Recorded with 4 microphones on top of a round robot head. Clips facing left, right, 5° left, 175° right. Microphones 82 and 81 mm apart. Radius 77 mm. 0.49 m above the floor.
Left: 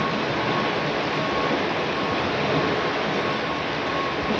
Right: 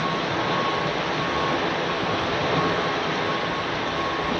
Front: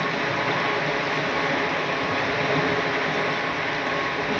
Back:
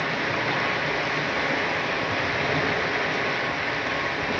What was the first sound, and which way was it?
Running water, 95° left.